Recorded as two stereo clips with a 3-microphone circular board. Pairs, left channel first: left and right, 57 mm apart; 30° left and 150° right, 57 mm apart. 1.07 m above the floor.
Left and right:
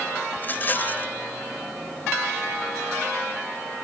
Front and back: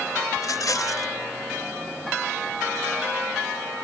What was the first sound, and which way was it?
A rattle, 35° left.